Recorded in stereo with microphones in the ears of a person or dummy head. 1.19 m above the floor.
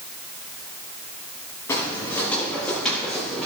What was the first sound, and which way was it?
Footsteps, 20° left (ahead or behind).